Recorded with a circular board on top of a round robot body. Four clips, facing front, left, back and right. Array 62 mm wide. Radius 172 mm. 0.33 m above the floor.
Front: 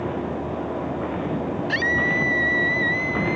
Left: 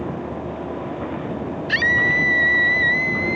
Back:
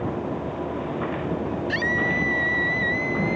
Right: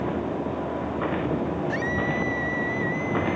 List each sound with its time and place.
1.7 s a scream: 80° left; by 3.4 s 85° left